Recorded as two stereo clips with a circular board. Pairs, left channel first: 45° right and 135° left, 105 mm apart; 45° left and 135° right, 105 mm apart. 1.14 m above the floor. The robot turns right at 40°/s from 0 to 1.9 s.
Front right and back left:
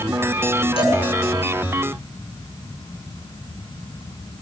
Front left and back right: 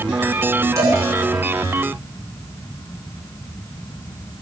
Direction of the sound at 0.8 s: 75° right.